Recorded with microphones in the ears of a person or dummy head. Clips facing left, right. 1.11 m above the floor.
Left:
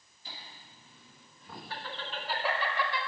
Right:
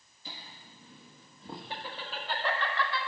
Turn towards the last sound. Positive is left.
turn(degrees=20)  # may be behind; listen again after turning